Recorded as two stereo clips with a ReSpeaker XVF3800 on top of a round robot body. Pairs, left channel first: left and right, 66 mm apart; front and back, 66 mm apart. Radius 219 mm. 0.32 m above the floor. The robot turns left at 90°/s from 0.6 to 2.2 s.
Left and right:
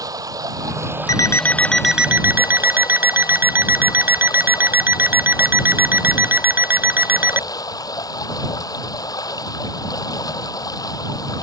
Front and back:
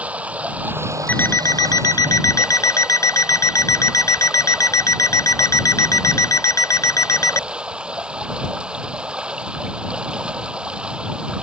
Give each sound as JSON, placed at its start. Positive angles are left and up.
{"t": 0.0, "sound": "running water", "azimuth_deg": -110}
{"t": 1.1, "sound": "an alarm clock", "azimuth_deg": 65}